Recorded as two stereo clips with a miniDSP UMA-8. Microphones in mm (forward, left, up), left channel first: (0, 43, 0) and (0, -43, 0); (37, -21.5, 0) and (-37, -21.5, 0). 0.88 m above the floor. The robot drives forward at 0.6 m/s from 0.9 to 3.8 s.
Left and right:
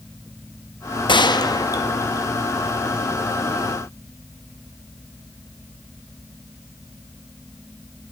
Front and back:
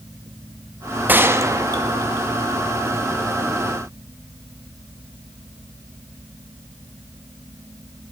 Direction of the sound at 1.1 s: 115° left.